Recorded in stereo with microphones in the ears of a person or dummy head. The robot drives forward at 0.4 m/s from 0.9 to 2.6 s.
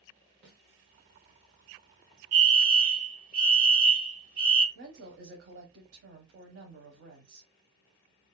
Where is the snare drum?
45° right (ahead or behind), 1.2 m.